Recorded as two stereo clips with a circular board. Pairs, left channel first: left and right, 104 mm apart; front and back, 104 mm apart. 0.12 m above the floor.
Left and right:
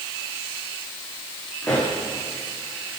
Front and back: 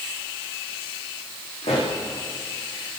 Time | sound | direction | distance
1.6 | a pop | 10° left | 8.5 m